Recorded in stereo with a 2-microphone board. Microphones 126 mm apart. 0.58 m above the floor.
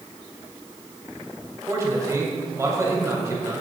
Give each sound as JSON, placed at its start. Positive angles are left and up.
{"t": 1.7, "sound": "a man speaking", "side_deg": -25, "distance_m": 3.0}